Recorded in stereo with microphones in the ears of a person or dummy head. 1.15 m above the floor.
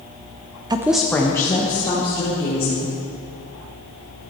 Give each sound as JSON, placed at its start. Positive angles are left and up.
{"t": 0.7, "sound": "a woman speaking", "side_deg": -25, "distance_m": 0.6}